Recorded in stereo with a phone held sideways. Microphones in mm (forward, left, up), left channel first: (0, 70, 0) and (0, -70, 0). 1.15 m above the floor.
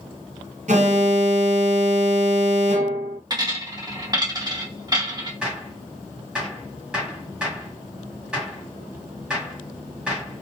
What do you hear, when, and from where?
0.7 s an alarm: 60° right (ahead or behind), 0.7 m
3.3 s a dropped coin: 30° right (ahead or behind), 0.9 m
5.4 s a gunshot: 5° right (ahead or behind), 1.3 m